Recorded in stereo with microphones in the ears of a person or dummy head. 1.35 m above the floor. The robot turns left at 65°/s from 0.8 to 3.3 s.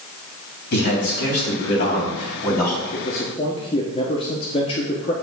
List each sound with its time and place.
0.7 s a man speaking: 140° left, 3.5 m; by 2.8 s 10° left, 3.5 m
2.9 s a man speaking: 50° left (ahead or behind), 1.2 m; by 5.1 s 30° left (ahead or behind), 1.2 m